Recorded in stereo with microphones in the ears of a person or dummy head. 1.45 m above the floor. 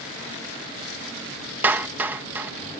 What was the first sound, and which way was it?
A clap, 10° right (ahead or behind).